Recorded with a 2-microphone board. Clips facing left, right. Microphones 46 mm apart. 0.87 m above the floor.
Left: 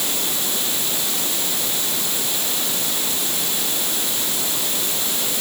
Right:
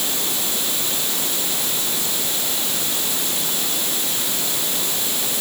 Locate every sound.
Only background noise.